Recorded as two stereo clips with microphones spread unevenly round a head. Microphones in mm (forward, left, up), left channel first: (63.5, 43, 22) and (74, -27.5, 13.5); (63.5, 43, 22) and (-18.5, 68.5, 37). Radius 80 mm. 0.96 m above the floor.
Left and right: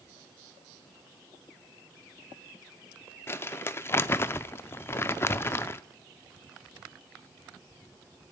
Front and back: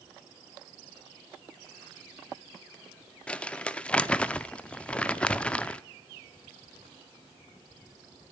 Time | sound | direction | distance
3.3 | crumpling | 65° left | 0.6 m